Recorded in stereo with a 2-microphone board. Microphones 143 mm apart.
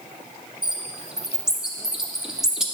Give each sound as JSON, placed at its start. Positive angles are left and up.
{"t": 0.6, "sound": "a bird", "side_deg": -5, "distance_m": 1.2}